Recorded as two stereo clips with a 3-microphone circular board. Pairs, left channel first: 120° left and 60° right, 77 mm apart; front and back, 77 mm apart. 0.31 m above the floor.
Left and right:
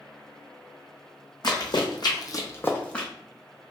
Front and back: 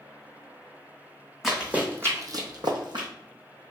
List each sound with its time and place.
1.4 s running footsteps: 95° left, 1.0 m; by 3.1 s 160° right, 0.9 m